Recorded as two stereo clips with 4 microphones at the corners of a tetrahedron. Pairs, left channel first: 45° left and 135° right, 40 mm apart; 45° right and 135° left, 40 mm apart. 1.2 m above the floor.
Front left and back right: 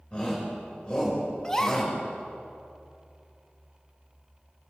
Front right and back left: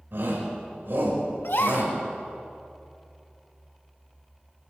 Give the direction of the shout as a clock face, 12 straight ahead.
8 o'clock.